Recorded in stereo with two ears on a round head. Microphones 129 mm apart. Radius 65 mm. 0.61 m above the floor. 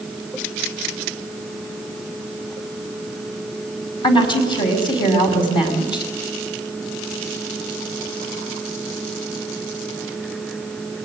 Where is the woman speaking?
35° left (ahead or behind), 5 m.